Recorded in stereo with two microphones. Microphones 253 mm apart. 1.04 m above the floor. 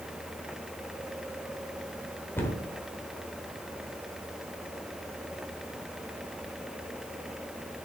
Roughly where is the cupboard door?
Centre.